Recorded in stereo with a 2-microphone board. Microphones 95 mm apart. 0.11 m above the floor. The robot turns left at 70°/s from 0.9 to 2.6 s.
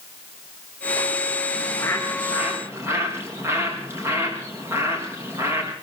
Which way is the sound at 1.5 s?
45° left.